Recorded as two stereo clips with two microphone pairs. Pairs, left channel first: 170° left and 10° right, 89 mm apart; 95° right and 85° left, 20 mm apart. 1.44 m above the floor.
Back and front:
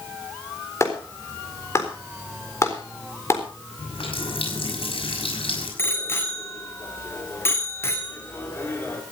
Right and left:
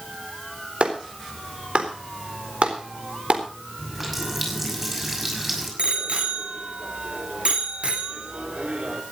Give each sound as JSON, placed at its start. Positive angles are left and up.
{"t": 0.8, "sound": "a clap", "azimuth_deg": 110, "distance_m": 4.0}
{"t": 3.8, "sound": "a running tap", "azimuth_deg": 165, "distance_m": 6.0}
{"t": 5.8, "sound": "a bicycle bell", "azimuth_deg": 105, "distance_m": 3.0}